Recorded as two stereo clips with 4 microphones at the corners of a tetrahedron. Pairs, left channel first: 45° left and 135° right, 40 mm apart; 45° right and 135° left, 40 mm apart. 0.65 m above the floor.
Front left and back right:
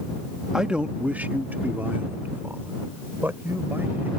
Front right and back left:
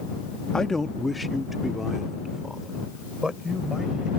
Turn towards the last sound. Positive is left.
turn(degrees=-150)